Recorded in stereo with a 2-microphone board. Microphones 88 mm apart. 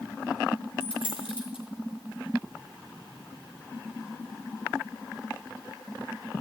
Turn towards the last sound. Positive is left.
turn(degrees=80)